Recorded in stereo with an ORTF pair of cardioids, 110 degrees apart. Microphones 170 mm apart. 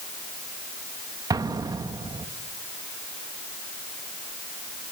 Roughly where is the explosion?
Ahead.